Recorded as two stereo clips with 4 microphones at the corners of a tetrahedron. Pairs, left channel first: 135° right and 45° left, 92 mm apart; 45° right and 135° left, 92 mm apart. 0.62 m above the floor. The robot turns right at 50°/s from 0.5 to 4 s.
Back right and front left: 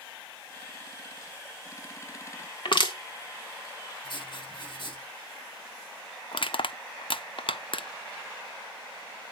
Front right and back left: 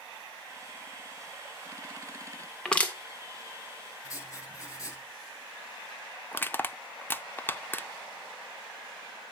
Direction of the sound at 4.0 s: 100° right.